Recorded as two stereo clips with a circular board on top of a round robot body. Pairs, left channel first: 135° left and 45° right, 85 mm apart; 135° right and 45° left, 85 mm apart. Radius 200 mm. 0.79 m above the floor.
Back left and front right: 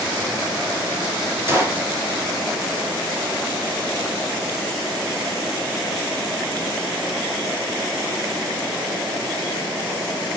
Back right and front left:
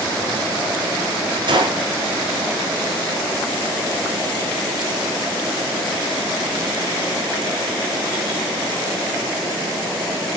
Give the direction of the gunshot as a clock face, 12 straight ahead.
11 o'clock.